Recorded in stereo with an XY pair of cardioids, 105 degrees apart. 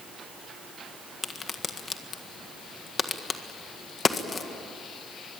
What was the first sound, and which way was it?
A crack, 35° left.